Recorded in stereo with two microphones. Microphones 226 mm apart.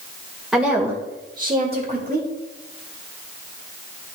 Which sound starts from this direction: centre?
A woman speaking, at 0.5 s.